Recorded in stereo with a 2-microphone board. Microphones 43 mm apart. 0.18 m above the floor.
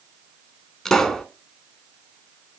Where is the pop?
10° left (ahead or behind), 0.7 m.